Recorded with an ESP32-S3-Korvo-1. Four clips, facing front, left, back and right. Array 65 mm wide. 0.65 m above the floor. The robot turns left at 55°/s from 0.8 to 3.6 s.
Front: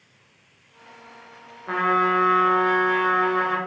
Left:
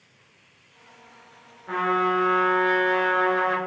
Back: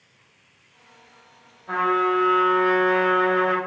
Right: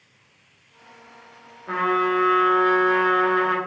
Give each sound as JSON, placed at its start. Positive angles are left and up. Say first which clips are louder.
{"t": 1.7, "sound": "a trumpet", "louder": "right 1 dB, even", "azimuth_deg": -15, "distance_m": 0.7}